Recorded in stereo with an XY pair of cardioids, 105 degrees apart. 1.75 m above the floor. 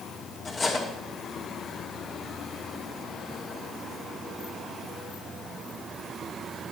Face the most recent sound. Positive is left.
turn(degrees=35)